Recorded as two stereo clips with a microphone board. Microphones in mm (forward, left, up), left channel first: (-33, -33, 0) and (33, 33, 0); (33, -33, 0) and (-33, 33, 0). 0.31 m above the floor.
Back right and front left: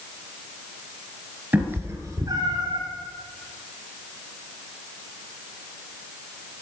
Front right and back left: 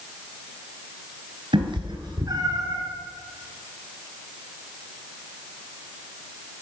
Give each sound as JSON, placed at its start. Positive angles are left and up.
{"t": 1.5, "sound": "a cat meowing", "azimuth_deg": 115, "distance_m": 1.7}